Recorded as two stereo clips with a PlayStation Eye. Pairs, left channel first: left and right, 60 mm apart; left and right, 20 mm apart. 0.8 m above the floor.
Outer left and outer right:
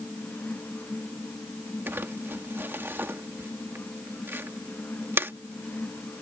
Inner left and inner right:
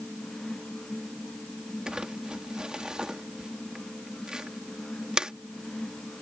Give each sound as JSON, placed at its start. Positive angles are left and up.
{"t": 1.9, "sound": "crumpling", "side_deg": -40}